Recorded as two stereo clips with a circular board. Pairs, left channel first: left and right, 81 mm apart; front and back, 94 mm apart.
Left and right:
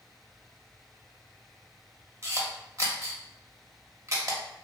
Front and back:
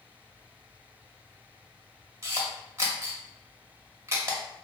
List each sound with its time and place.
2.2 s a camera shutter: 130° right, 0.6 m